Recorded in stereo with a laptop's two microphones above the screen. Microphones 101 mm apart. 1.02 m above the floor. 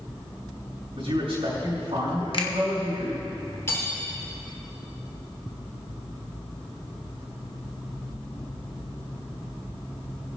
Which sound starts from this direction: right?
A man speaking, at 0.9 s.